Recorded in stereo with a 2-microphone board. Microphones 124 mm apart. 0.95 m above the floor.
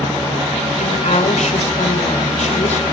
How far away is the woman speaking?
About 3.5 m.